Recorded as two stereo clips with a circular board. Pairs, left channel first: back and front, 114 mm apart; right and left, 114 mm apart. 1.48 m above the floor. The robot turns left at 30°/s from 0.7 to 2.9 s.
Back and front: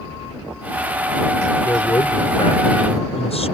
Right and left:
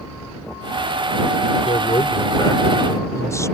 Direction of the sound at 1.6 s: 115° right.